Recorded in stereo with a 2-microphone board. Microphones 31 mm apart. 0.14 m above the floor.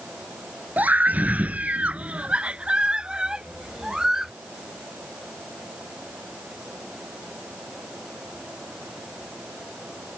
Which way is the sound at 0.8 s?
55° right (ahead or behind).